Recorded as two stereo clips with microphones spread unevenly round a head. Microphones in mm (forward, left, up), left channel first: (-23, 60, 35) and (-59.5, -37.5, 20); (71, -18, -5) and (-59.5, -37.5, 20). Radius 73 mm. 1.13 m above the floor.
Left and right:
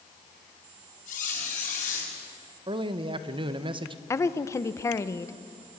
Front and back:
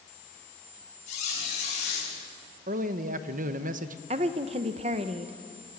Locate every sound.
1.1 s a squeak: 55° left, 6 m
2.7 s a man speaking: 145° right, 1.0 m
4.1 s a woman speaking: 135° left, 0.9 m